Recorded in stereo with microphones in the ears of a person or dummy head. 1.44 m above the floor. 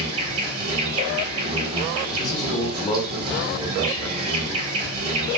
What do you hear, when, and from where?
0.0 s an insect: 30° right (ahead or behind), 3.5 m
2.2 s a man speaking: 35° left (ahead or behind), 1.9 m